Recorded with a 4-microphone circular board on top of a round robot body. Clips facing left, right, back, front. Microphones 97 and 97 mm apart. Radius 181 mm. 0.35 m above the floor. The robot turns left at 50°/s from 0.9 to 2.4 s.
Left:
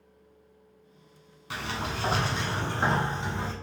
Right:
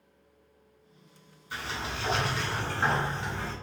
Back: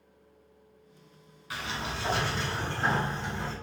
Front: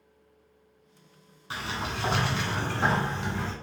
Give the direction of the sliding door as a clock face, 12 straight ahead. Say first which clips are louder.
Left 3 dB, front 2 dB; 10 o'clock.